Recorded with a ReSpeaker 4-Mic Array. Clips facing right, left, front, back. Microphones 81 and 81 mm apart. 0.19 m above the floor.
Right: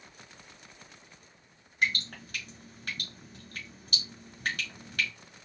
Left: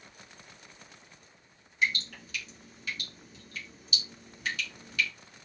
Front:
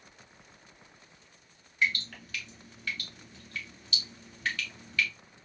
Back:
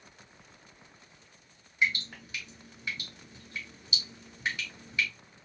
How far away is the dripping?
About 1.2 m.